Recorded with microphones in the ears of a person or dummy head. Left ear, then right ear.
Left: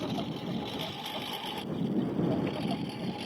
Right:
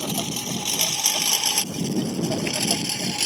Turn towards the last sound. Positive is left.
turn(degrees=-75)  # may be behind; listen again after turning